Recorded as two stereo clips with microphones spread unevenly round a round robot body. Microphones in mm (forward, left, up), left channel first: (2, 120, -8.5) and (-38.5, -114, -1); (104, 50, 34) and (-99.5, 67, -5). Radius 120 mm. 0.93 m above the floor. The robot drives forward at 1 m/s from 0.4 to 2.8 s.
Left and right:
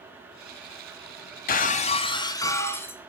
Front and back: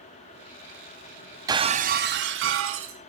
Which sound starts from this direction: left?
Breaking glass, at 1.5 s.